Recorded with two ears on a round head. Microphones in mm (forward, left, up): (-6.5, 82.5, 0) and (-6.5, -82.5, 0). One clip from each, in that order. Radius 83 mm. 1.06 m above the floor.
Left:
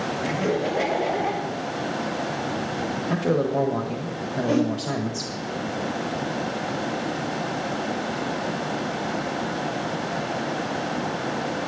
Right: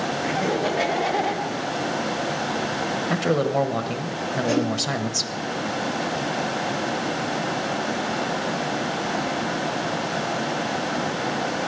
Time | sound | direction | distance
0.2 | laughter | 5° right (ahead or behind) | 1.9 m
3.1 | a man speaking | 55° right (ahead or behind) | 1.2 m
4.5 | a whoosh | 35° right (ahead or behind) | 3.5 m